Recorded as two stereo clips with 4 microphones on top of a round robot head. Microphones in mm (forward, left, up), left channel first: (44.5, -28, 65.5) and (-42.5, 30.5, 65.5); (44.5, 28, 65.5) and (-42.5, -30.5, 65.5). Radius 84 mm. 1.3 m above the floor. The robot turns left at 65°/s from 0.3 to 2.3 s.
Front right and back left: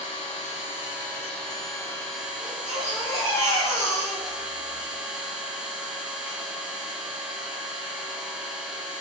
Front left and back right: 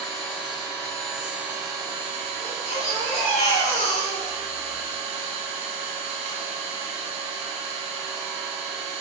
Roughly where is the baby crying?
Ahead left.